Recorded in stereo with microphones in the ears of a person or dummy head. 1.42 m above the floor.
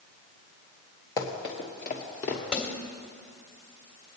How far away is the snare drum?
About 1.9 m.